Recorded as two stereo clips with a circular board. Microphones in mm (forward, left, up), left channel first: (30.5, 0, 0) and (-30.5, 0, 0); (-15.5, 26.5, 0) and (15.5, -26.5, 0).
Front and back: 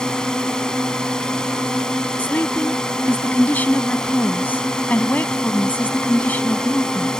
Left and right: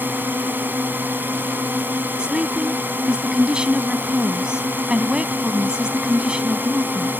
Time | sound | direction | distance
0.0 | a drone | 70° right | ?
2.2 | a woman speaking | straight ahead | ?